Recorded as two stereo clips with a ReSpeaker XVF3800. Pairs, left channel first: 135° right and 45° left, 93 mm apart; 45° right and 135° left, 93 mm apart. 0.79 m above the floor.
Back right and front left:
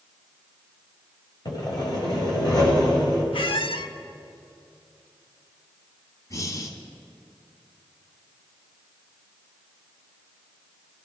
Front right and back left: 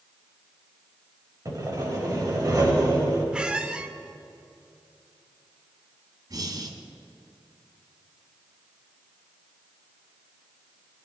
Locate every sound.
1.4 s sawing: 175° right, 4 m
3.3 s a squeak: 145° right, 0.8 m
6.3 s breathing: 175° left, 1.7 m